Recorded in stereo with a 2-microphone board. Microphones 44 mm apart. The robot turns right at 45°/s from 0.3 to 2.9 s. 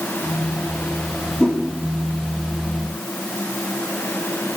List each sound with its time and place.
1.4 s a whoosh: 15° left (ahead or behind), 4 m; by 1.6 s 5° left (ahead or behind), 4 m